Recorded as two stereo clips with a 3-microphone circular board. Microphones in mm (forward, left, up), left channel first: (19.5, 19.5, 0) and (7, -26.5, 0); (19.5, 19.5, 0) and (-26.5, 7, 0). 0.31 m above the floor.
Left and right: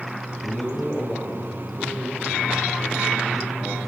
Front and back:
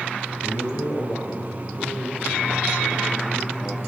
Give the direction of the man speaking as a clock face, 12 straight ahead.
12 o'clock.